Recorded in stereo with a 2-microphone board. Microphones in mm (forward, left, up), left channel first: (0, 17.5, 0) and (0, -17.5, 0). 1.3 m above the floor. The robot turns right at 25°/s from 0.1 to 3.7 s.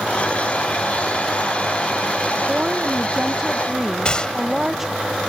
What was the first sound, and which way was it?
A woman speaking, 35° right.